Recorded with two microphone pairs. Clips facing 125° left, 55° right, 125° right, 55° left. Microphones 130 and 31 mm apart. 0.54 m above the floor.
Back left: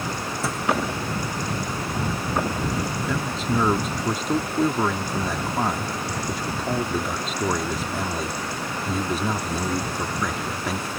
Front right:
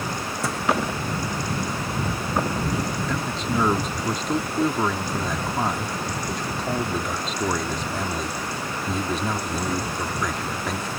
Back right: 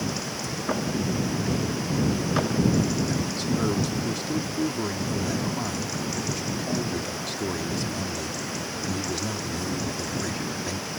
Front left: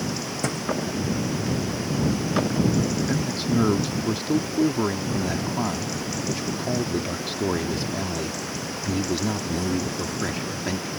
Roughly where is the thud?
Ahead left.